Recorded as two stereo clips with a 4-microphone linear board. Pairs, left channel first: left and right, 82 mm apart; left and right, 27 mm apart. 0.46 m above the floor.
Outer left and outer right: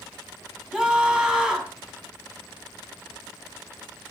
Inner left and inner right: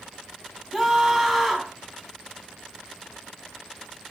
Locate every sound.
0.7 s a scream: 5° right (ahead or behind), 4 m